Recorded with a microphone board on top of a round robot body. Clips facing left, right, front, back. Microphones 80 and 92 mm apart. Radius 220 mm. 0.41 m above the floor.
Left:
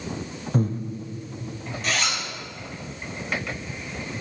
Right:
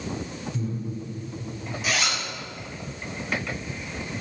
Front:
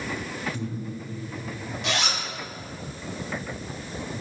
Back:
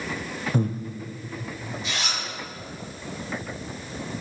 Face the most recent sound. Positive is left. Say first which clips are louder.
# even, front 5 dB
turn(degrees=-5)